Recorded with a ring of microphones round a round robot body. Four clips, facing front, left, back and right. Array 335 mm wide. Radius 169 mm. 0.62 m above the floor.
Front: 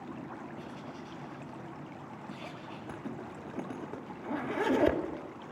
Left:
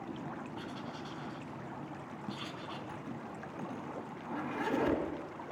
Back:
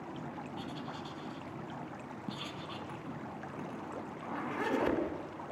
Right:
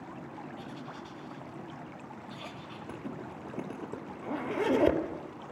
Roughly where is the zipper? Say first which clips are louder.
Right 3 dB, front 2 dB; ahead right.